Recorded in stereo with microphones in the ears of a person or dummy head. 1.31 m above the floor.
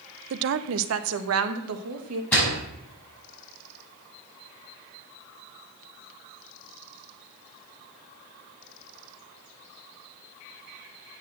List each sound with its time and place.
0.3 s a woman speaking: 65° right (ahead or behind), 0.6 m; by 2.2 s 85° right, 1.7 m
2.3 s a door slam: 10° left (ahead or behind), 5.5 m